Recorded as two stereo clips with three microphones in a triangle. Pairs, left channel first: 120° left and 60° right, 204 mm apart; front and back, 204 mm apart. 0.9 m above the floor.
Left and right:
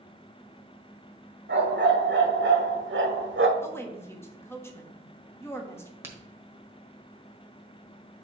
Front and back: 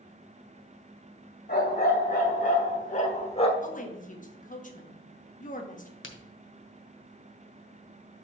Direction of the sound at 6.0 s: 15° left.